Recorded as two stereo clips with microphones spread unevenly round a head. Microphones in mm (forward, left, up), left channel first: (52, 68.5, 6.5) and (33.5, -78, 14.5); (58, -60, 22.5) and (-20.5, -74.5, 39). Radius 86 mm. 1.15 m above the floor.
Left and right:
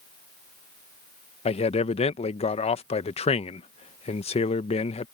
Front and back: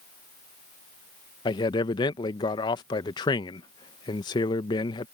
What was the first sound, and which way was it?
A man speaking, 35° left.